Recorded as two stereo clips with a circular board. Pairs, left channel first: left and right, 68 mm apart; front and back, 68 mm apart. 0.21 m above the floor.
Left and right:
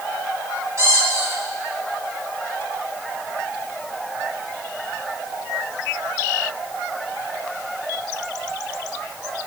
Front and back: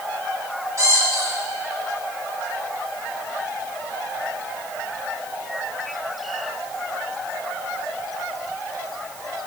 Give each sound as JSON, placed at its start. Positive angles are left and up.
{"t": 0.8, "sound": "a squeak", "azimuth_deg": -140, "distance_m": 3.0}